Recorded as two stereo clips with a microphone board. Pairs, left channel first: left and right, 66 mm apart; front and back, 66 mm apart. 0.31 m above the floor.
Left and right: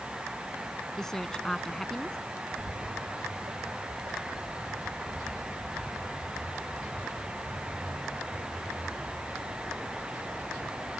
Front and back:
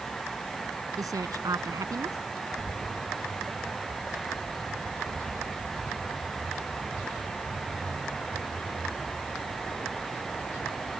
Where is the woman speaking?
170° left.